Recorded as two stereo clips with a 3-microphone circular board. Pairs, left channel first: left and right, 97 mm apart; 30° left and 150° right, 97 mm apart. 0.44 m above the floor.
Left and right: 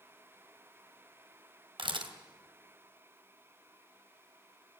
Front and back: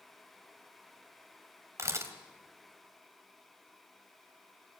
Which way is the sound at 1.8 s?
95° right.